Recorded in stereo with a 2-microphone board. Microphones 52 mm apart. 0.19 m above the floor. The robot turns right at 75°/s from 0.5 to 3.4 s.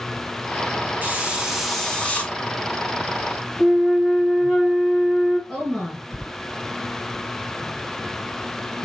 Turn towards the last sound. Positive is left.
turn(degrees=5)  # may be behind; listen again after turning